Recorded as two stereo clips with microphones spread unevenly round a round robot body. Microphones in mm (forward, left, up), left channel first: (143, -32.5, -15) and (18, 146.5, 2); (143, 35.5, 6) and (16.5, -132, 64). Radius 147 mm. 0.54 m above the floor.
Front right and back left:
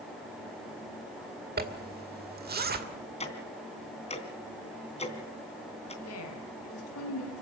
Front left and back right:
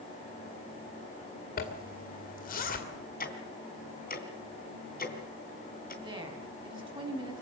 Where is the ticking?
5° left, 3 m.